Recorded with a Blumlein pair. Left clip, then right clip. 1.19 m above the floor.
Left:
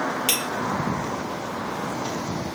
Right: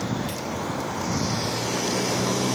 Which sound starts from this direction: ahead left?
Cutlery clinking, at 0.3 s.